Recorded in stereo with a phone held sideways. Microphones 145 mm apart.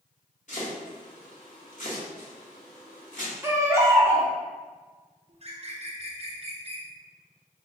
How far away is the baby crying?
About 0.8 m.